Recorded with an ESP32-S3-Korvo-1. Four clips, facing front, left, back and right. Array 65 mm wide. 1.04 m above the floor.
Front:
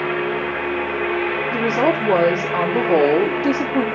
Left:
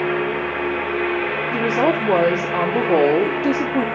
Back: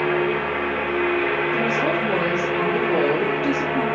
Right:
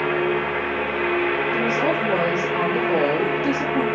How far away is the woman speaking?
About 2.5 m.